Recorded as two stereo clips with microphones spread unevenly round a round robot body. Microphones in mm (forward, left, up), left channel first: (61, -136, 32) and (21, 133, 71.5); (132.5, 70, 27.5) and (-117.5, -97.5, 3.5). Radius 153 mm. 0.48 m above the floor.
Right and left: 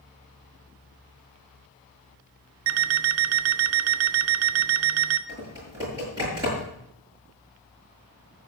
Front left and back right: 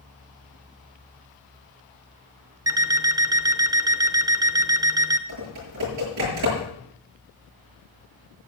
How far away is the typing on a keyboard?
About 7.5 m.